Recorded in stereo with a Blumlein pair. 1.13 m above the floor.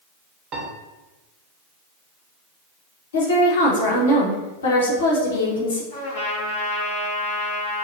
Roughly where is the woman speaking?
Ahead left.